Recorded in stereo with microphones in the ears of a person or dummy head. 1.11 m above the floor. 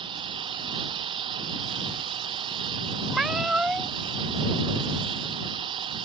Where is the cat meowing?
Centre (ahead or behind).